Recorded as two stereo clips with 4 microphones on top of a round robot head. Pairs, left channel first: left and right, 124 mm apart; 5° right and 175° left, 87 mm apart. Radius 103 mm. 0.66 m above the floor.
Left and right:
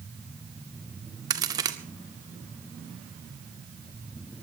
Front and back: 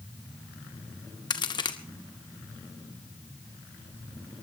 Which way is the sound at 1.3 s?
30° right.